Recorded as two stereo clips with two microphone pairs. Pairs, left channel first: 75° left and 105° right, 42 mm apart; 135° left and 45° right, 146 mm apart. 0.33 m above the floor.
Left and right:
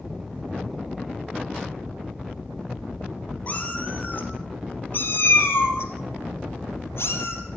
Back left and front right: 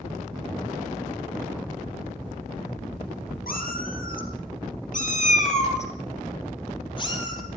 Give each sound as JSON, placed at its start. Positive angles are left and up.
{"t": 3.5, "sound": "a cat meowing", "azimuth_deg": 125, "distance_m": 4.0}